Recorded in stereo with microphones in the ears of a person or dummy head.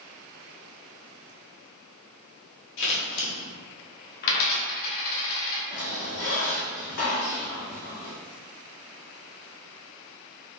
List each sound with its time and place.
2.8 s scissors: 65° left (ahead or behind), 1.3 m
4.2 s a dropped coin: 50° left (ahead or behind), 1.0 m
5.7 s a squeak: 50° left (ahead or behind), 2.0 m